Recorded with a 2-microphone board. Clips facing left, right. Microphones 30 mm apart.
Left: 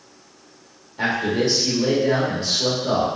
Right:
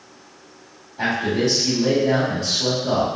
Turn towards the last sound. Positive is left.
turn(degrees=25)  # may be behind; listen again after turning